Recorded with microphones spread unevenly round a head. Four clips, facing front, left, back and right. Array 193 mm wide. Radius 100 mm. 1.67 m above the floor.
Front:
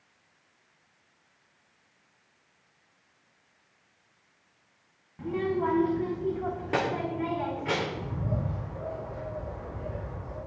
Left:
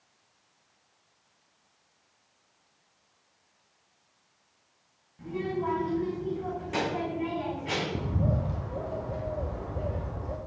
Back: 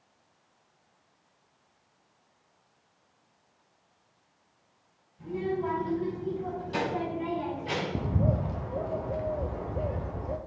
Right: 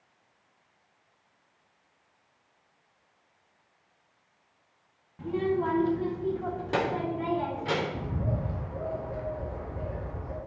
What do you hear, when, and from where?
5.2 s a child speaking: 20° right, 2.5 m; by 7.8 s 30° right, 5 m
8.0 s a bird: 160° left, 1.1 m